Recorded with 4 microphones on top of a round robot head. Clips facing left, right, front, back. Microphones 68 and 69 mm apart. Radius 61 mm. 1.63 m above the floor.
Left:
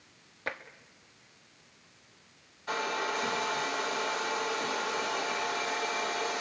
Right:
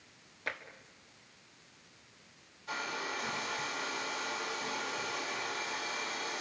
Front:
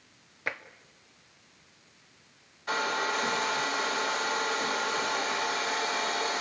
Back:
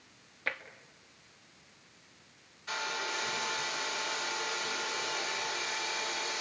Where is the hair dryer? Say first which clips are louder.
Left 6 dB, front 7 dB; 40° left, 2.5 m.